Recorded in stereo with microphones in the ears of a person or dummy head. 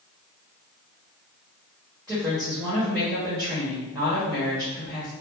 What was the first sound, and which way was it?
A woman speaking, 5° right (ahead or behind).